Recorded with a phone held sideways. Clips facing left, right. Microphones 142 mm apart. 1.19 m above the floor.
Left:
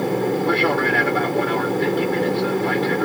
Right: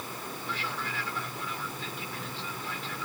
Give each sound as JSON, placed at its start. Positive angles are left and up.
{"t": 0.0, "sound": "an aircraft", "side_deg": 70}